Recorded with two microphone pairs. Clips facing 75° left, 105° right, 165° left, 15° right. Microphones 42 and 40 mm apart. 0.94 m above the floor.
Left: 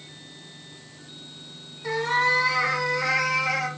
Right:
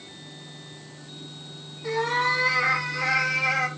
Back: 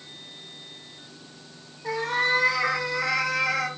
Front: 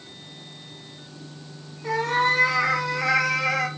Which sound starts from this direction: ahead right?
A cat meowing, at 1.8 s.